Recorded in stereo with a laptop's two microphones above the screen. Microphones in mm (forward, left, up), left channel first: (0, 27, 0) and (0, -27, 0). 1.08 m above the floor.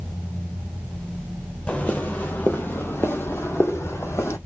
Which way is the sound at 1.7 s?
25° left (ahead or behind).